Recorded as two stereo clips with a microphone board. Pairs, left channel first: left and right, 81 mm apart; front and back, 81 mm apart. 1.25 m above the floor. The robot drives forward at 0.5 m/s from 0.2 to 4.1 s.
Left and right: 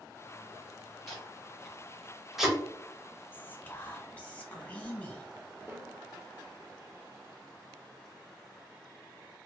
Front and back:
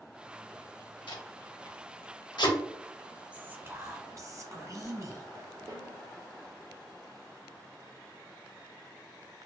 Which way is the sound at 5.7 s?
155° right.